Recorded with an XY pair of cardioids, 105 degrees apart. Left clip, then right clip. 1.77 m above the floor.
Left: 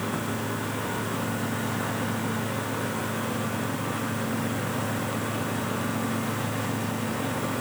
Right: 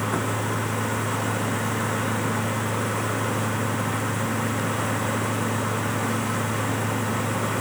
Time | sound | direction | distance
0.0 | a machine running | 40° right | ?